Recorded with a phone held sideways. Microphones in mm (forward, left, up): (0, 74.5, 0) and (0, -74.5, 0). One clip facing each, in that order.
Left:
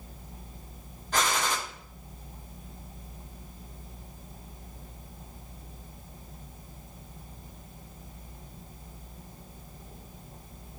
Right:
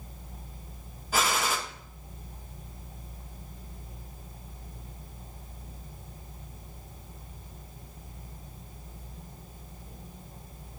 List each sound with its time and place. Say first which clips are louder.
1.1 s a gunshot: even; 5° right (ahead or behind), 0.7 m